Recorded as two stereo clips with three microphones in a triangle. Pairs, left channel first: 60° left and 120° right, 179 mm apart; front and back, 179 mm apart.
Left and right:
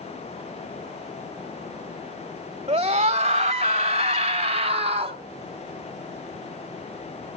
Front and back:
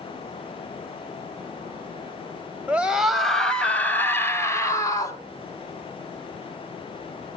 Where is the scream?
105° right, 1.3 m; by 5.2 s 70° right, 2.5 m.